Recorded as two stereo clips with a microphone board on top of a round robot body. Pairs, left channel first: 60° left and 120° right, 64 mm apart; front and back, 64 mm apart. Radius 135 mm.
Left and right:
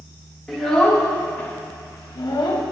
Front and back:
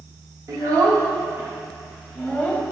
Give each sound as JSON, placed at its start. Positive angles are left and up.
{"t": 0.5, "sound": "a child speaking", "azimuth_deg": 150, "distance_m": 1.1}